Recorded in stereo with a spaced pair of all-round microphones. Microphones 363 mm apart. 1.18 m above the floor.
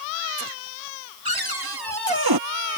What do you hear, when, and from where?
1.2 s a cupboard door: 80° right